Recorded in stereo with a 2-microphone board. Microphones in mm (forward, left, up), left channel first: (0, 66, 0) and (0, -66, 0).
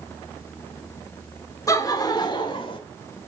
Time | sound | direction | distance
1.7 | laughter | 25° left (ahead or behind) | 1.5 m